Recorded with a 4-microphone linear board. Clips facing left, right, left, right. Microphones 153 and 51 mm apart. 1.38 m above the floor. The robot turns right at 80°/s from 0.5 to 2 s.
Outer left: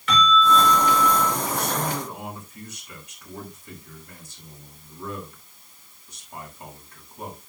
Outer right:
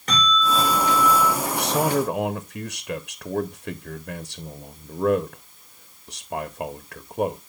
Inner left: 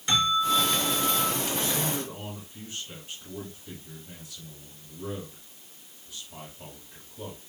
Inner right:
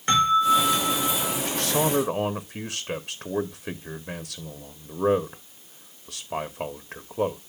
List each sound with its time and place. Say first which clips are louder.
0.1 s a bell: outer left 4 dB, inner right 5 dB; 45° right, 5.5 m; by 1.4 s 25° left, 5.5 m
1.4 s a man speaking: outer right 4 dB, inner right 5 dB; 120° right, 0.9 m; by 7.4 s 75° right, 0.9 m